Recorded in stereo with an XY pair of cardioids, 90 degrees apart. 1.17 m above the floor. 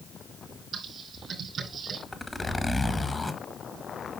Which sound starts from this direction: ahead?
A zipper, at 2.1 s.